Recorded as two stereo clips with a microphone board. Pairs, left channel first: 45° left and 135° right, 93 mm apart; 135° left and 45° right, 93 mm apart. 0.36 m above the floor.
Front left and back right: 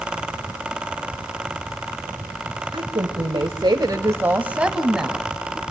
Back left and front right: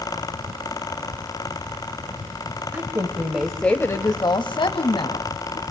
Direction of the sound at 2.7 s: 100° right.